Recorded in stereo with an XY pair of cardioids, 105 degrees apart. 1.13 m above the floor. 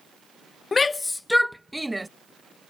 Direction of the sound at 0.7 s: 35° left.